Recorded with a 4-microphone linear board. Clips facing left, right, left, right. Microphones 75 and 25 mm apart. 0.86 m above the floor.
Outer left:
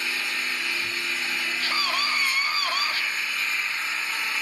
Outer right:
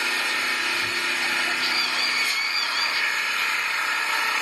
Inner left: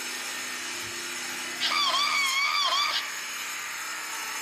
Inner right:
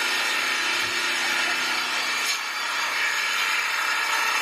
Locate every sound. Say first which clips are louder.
0.0 s an engine running: outer right 4 dB, inner right 11 dB; 70° right (ahead or behind), 0.9 m
1.6 s a scream: even, even; 55° left (ahead or behind), 1.5 m